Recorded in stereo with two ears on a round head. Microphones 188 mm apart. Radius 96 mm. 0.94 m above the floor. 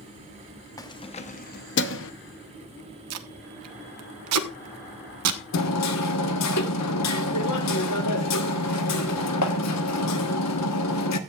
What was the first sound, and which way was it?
Keys jangling, 15° left (ahead or behind).